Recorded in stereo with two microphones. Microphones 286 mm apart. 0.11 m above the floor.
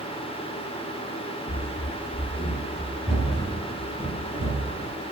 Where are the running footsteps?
50° left (ahead or behind), 1.1 m; by 4.9 s 10° right (ahead or behind), 5 m.